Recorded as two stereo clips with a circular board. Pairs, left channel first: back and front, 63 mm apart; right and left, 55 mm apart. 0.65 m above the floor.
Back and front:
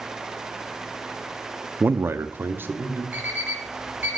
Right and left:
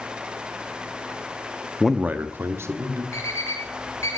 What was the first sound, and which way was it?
A man speaking, 10° right.